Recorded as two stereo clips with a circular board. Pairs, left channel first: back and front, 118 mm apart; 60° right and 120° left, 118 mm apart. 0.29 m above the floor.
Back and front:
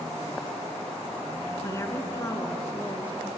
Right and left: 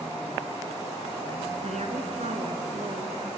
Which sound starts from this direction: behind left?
A woman speaking, at 1.6 s.